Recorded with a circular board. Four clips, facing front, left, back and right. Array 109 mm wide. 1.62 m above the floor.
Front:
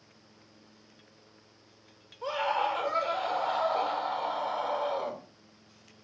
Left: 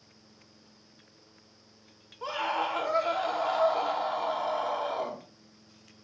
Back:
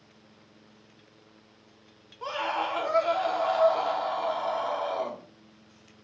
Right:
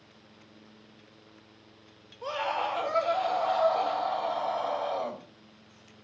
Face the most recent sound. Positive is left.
turn(degrees=135)